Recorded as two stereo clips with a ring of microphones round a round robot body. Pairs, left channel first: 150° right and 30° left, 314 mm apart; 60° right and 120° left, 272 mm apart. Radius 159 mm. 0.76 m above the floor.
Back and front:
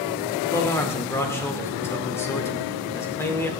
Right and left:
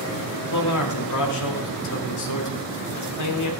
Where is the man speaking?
70° right, 2.5 m.